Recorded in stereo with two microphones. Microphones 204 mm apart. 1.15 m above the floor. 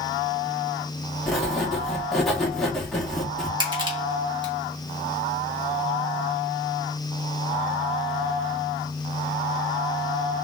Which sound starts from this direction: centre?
Writing, at 1.3 s.